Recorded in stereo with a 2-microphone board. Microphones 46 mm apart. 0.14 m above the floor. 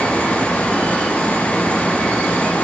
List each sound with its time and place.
Only background noise.